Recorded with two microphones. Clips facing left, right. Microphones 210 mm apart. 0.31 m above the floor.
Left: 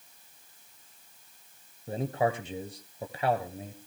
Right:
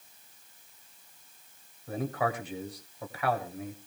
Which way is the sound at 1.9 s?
30° left (ahead or behind).